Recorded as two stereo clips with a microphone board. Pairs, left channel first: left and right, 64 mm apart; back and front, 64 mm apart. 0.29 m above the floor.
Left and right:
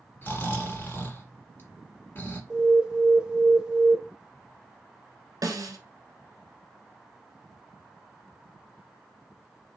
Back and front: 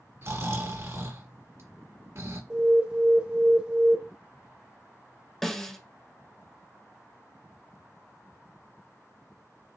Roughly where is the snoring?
Ahead left.